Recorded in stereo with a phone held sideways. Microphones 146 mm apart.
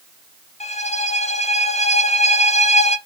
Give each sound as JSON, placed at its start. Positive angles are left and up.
{"t": 0.6, "sound": "a violin", "side_deg": 50, "distance_m": 1.2}